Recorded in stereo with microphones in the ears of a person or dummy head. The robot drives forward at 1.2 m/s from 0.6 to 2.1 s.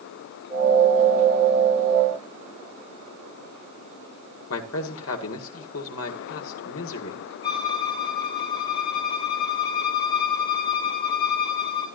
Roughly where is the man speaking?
Left.